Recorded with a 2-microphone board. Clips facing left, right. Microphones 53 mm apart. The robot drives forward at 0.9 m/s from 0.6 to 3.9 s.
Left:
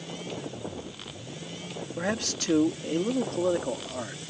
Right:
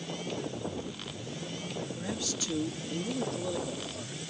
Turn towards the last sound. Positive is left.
turn(degrees=55)  # may be behind; listen again after turning